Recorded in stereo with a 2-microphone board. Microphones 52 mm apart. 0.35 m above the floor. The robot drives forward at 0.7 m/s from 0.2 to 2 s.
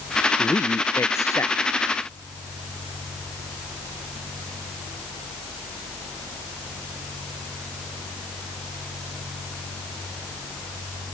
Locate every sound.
0.4 s a man speaking: 65° left (ahead or behind); by 1.5 s 60° left (ahead or behind)